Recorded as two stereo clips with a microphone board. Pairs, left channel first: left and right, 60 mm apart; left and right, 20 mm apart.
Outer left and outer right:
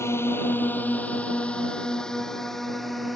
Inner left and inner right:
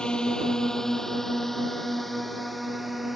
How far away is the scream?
No scream in this recording.